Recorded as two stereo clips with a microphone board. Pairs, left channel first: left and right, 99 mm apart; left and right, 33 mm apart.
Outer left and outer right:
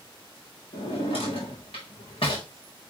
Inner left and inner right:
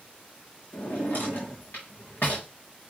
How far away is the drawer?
About 3.5 m.